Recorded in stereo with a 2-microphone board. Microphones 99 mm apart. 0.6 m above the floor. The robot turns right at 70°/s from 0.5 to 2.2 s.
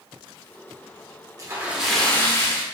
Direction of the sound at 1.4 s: 35° right.